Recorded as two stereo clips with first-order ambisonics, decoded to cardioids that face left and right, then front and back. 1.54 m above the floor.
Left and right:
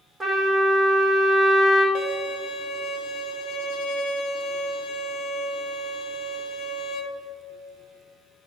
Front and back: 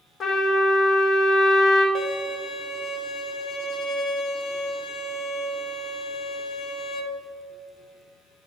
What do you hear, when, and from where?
0.2 s a trumpet: 25° right, 1.0 m
1.9 s a violin: 55° left, 0.8 m